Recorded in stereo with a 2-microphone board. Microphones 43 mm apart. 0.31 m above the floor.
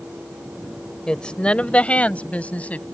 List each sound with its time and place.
1.1 s a woman speaking: 20° left (ahead or behind); by 2.8 s 35° left (ahead or behind)